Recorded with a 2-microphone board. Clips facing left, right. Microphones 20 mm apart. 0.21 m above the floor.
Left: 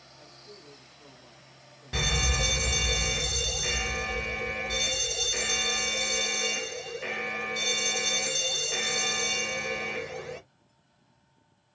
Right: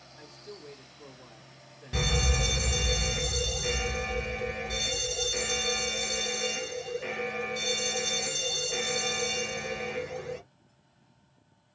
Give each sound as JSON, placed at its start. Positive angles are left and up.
{"t": 0.2, "sound": "a man speaking", "side_deg": -60, "distance_m": 3.0}
{"t": 1.9, "sound": "an alarm", "side_deg": 15, "distance_m": 1.1}